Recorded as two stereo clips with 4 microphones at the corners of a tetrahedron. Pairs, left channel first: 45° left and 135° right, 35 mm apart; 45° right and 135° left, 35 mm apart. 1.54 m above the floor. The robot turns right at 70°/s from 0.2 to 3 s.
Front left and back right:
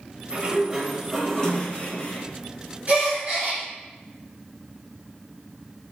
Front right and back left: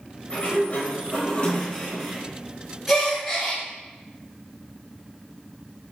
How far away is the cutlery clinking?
I don't hear cutlery clinking.